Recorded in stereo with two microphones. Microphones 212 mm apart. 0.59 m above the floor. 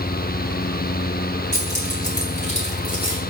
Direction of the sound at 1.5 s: 40° left (ahead or behind).